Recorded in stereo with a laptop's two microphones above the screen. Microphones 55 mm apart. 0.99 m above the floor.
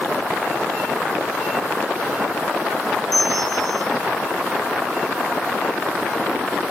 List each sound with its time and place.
3.1 s a bell: 85° right, 6.5 m